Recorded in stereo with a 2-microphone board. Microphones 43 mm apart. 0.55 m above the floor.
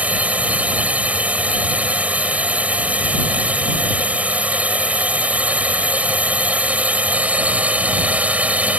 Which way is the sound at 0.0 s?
35° right (ahead or behind).